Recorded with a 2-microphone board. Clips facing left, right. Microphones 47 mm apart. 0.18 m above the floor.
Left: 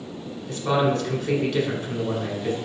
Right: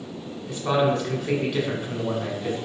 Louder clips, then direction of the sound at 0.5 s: Even; 10° right (ahead or behind).